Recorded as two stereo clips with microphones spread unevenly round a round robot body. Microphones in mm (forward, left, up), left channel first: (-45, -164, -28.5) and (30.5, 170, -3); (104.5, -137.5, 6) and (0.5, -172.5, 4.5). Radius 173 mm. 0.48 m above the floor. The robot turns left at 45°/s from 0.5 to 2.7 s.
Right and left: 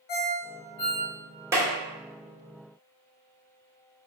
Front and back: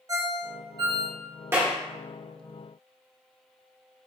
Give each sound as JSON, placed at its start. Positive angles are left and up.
{"t": 0.1, "sound": "a ringtone", "azimuth_deg": -110, "distance_m": 1.3}
{"t": 1.5, "sound": "a clap", "azimuth_deg": 160, "distance_m": 0.9}